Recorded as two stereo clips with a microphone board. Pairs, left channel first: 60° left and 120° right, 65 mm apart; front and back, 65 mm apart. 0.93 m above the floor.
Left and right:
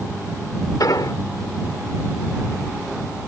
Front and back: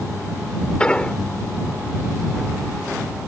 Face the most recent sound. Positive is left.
turn(degrees=75)